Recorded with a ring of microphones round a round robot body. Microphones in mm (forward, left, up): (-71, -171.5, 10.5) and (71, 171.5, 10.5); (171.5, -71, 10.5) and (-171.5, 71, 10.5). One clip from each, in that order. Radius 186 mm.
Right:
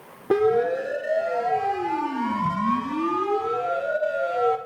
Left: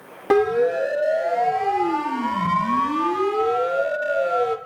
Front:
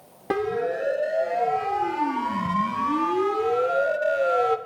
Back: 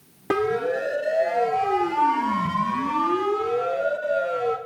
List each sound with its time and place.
0.3 s a siren: 75° left, 4 m; by 4.6 s 10° left, 1.6 m